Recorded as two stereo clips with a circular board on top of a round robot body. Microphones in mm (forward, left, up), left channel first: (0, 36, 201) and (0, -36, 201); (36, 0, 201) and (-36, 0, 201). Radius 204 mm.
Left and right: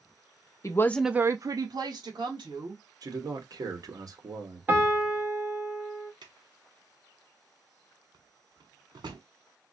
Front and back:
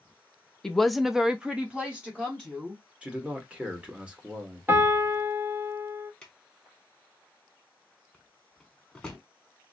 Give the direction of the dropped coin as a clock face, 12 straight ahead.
I don't hear a dropped coin.